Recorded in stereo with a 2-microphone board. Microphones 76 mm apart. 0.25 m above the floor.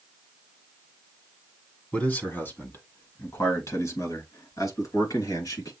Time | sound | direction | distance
1.9 | a man speaking | 20° left (ahead or behind) | 1.8 m